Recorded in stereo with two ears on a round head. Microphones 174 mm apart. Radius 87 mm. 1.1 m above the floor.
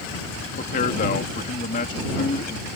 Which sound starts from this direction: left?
A man speaking, at 0.6 s.